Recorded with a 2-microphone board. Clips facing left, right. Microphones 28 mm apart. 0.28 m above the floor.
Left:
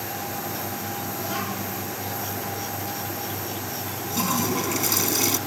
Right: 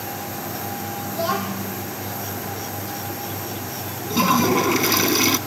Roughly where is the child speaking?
Right.